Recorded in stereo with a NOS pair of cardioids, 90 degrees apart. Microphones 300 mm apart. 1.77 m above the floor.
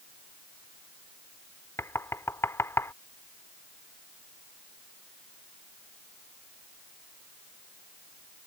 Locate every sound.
1.8 s knocking: 10° left